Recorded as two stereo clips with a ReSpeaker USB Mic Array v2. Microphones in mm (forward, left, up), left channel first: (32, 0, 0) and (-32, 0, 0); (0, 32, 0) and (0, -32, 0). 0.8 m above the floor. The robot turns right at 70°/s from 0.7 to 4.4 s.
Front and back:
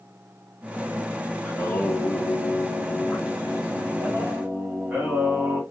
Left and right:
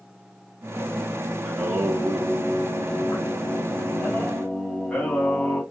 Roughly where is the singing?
Ahead right.